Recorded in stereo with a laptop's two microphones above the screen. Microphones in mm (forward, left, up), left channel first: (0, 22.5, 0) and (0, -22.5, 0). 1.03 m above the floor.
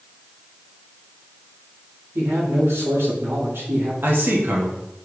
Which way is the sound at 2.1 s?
85° right.